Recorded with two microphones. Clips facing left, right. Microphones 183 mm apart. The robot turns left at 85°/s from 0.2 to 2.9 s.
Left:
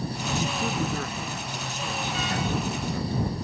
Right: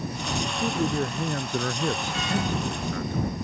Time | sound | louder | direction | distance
0.4 | a man speaking | right 4 dB | 15° left | ?